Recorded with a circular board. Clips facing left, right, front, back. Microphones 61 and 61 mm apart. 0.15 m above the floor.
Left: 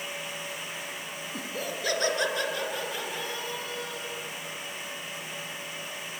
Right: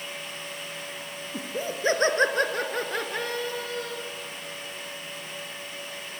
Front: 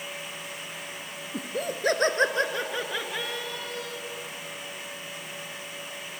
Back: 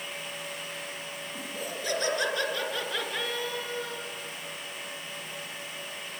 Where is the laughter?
20° right, 2.5 m; by 4.0 s 110° right, 2.5 m.